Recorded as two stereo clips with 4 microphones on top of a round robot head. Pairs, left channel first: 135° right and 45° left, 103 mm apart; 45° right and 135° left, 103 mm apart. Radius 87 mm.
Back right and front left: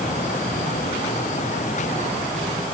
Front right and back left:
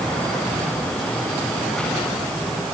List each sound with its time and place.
Only background noise.